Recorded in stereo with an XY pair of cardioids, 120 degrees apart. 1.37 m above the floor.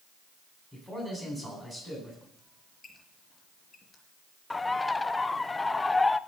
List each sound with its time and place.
0.7 s a man speaking: 10° right, 9.5 m
2.4 s a squeak: 20° left, 4 m
4.5 s a bird: 15° left, 0.5 m